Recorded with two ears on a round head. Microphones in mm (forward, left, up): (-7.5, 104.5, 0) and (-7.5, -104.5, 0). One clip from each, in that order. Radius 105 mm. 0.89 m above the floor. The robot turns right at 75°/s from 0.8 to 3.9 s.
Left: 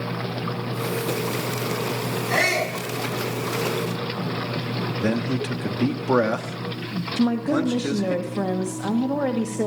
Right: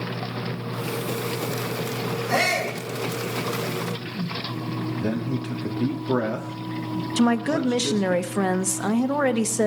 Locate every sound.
2.3 s a shout: 65° right, 10 m; by 2.8 s 30° right, 10 m
5.0 s a man speaking: 30° left (ahead or behind), 1.2 m
7.2 s a woman speaking: 65° right (ahead or behind), 0.9 m